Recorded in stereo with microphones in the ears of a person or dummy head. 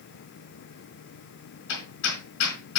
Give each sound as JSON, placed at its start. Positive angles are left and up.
{"t": 1.7, "sound": "hammering", "side_deg": 80, "distance_m": 3.5}